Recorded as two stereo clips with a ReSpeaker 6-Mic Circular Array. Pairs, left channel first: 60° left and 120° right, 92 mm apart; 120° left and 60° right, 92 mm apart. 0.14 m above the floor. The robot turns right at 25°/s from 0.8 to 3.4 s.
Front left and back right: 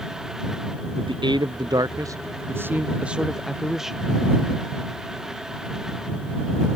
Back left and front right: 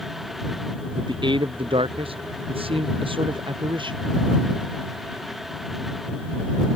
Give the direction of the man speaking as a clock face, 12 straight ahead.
3 o'clock.